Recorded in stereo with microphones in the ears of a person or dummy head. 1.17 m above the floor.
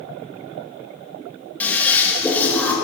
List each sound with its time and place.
1.6 s a toilet flushing: 10° left (ahead or behind), 1.5 m